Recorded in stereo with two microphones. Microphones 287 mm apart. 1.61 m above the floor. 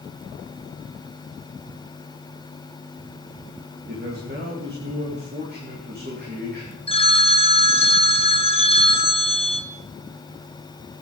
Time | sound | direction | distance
3.9 | a man speaking | 35° right (ahead or behind) | 2.5 m
6.9 | a phone ringing | 20° left (ahead or behind) | 1.2 m